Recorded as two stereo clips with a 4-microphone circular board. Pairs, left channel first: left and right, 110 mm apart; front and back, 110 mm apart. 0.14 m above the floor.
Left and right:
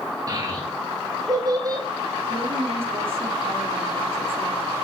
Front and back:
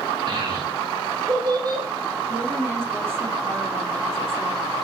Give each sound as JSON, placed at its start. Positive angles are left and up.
{"t": 0.3, "sound": "a child speaking", "azimuth_deg": -145, "distance_m": 6.5}
{"t": 2.3, "sound": "a woman speaking", "azimuth_deg": -115, "distance_m": 7.5}